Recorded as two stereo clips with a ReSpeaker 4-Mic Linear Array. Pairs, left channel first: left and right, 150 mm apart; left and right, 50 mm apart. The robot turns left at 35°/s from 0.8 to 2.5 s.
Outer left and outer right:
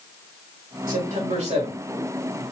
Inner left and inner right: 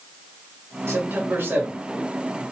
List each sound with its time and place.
0.9 s a man speaking: 70° right (ahead or behind), 2.5 m; by 2.4 s 15° right (ahead or behind), 2.5 m